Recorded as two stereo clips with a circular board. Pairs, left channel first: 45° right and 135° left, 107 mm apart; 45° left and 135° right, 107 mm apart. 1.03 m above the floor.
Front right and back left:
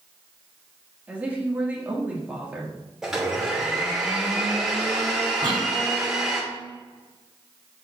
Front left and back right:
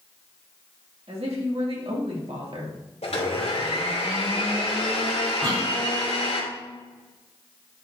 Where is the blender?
50° left, 2.5 m.